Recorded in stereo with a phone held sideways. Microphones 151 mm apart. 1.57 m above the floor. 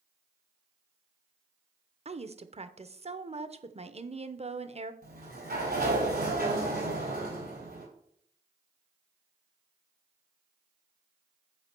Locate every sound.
2.0 s a woman speaking: 40° right (ahead or behind), 0.7 m
5.0 s a sliding door: 75° right (ahead or behind), 4.5 m